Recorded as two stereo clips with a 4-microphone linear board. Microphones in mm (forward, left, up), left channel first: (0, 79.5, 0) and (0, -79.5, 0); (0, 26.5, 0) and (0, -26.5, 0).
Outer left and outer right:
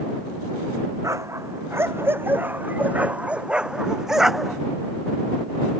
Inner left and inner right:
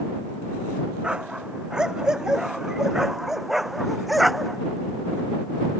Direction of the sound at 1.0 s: 20° right (ahead or behind).